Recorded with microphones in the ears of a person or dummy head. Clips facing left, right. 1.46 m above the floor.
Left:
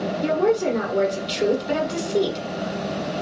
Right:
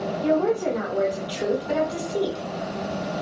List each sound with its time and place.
0.2 s a woman speaking: 45° left (ahead or behind), 1.5 m